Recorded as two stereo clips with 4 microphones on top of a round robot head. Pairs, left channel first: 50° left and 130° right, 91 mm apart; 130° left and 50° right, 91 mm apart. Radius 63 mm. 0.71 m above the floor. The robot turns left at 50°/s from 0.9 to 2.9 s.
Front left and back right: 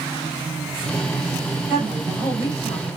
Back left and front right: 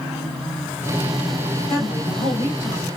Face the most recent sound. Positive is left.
turn(degrees=85)